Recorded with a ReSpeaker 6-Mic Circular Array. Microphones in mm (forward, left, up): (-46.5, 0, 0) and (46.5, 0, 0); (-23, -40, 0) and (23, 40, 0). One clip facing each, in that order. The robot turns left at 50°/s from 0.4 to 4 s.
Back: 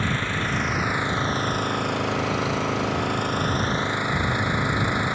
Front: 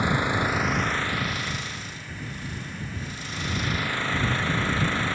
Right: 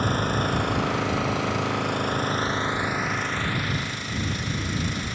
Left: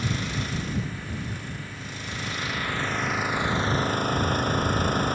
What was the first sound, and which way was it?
An engine running, 75° right.